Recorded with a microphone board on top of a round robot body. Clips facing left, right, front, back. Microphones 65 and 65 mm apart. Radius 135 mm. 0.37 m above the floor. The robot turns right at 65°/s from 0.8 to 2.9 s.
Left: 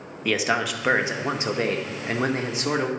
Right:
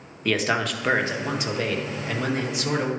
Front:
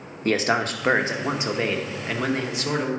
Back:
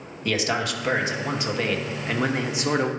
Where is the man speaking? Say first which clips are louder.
Even, front 3 dB; 10° left, 1.0 m; by 2.9 s 145° left, 1.0 m.